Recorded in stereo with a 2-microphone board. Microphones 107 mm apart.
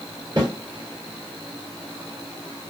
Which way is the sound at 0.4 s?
40° right (ahead or behind).